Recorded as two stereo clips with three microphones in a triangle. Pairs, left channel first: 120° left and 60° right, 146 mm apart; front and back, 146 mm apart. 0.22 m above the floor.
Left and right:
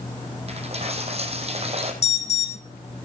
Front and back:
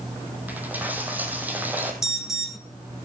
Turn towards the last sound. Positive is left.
turn(degrees=95)